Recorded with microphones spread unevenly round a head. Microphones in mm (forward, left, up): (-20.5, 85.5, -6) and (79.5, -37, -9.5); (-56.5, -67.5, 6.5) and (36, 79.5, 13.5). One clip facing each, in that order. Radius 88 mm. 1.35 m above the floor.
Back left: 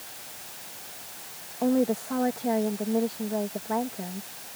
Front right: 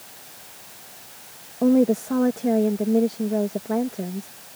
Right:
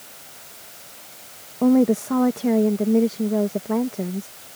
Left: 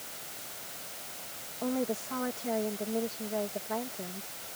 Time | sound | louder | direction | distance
1.6 | a woman speaking | front right 6 dB, right 15 dB | 100° right | ?